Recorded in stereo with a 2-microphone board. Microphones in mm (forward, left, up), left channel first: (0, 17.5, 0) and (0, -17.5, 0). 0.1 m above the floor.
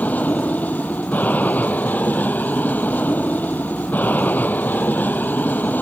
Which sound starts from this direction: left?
An aircraft, at 0.0 s.